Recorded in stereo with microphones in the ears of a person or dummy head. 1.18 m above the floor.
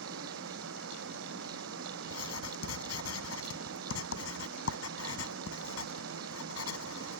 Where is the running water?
75° right (ahead or behind).